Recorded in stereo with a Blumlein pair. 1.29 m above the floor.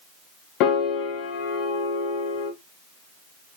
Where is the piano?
40° left, 1.1 m.